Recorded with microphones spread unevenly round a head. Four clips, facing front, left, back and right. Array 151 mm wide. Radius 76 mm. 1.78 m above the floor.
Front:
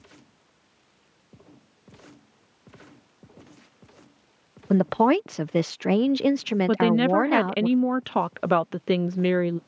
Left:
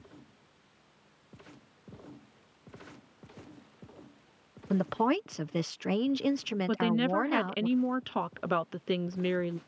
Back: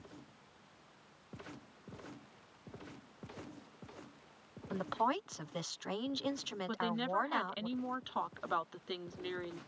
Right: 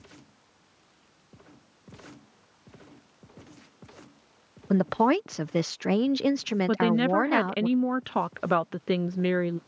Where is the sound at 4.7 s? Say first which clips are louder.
Right 5 dB, front 15 dB; 20° right.